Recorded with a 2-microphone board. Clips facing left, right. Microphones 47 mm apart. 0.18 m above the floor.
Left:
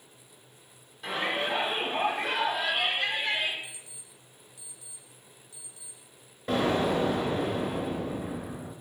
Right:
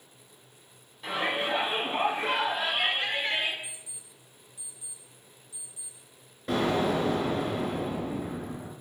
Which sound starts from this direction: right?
An alarm clock, at 3.6 s.